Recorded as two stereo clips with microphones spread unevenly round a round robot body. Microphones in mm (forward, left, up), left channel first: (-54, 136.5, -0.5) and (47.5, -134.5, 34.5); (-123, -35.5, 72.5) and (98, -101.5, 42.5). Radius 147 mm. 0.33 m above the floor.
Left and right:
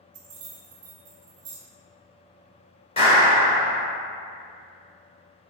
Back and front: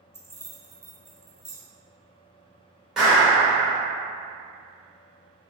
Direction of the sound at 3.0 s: 60° left.